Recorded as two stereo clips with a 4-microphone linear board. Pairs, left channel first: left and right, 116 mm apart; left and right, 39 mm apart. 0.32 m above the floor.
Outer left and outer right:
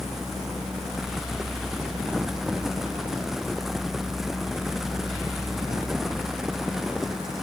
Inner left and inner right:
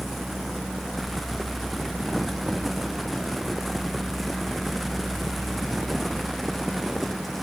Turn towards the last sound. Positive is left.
No sound to turn to.